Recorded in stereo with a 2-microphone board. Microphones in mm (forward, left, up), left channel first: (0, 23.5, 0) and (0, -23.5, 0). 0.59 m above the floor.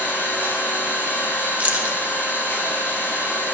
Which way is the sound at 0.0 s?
55° left (ahead or behind).